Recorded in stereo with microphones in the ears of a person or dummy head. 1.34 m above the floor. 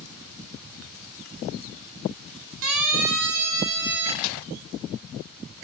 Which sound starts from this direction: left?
A snare drum, at 4.2 s.